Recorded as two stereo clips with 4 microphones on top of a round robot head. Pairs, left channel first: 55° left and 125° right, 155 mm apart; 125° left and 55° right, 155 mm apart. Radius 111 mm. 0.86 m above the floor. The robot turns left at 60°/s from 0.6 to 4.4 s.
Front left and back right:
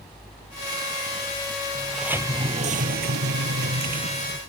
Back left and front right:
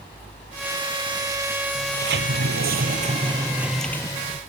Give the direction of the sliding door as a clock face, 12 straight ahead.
1 o'clock.